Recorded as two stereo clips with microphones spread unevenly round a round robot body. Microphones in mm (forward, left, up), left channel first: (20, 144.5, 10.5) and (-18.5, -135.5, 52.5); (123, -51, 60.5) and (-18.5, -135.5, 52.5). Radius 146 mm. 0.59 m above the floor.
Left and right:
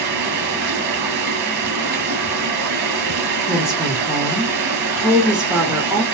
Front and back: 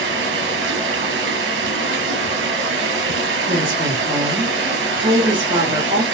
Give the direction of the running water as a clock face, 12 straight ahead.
5 o'clock.